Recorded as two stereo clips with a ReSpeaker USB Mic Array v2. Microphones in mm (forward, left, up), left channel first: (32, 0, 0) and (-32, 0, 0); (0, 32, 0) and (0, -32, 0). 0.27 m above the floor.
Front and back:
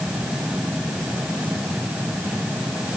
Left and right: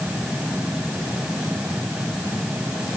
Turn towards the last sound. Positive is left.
No sound to turn to.